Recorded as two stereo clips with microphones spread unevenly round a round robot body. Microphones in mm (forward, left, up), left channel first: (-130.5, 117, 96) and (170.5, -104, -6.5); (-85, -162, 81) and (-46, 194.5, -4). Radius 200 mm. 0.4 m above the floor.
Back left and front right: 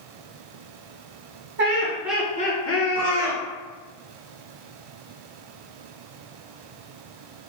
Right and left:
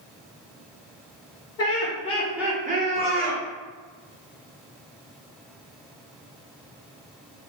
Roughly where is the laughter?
Ahead right.